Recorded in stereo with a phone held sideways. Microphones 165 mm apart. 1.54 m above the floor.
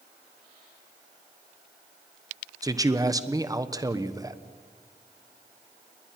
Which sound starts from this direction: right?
A man speaking, at 2.6 s.